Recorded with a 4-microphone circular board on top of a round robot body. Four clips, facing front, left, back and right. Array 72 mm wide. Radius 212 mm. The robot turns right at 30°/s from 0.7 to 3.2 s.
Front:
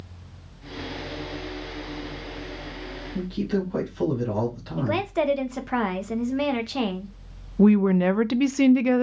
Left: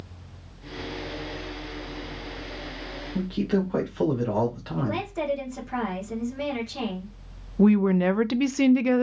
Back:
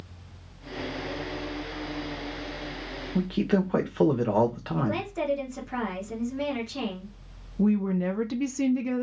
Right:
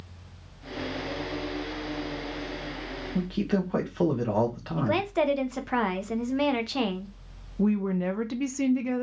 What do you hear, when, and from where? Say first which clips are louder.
3.1 s a man speaking: left 2 dB, back 2 dB; 175° right, 1.4 m
4.8 s a woman speaking: right 3 dB, front 5 dB; 45° right, 1.1 m
7.6 s a woman speaking: left 6 dB, front 7 dB; 35° left, 0.5 m